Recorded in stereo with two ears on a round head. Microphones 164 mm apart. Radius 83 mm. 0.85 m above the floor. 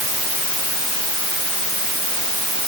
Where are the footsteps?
I don't hear footsteps.